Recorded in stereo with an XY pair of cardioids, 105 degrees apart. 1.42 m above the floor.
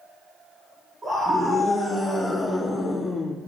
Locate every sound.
1.0 s a scream: 30° right, 3 m; by 3.3 s 30° left, 3 m